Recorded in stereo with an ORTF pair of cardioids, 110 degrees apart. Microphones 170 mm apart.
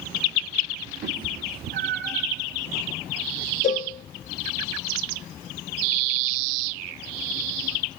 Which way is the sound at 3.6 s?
45° left.